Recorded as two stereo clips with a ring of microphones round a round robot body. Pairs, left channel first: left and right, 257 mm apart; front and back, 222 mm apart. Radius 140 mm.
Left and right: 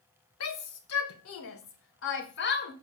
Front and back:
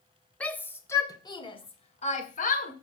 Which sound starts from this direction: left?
A shout, at 0.4 s.